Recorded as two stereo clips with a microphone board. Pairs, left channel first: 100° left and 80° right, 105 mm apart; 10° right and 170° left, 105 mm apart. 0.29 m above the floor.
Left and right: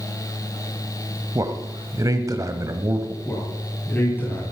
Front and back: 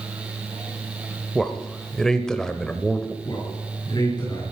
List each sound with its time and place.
1.4 s a man speaking: 90° right, 1.1 m
3.2 s a man speaking: 30° left, 7 m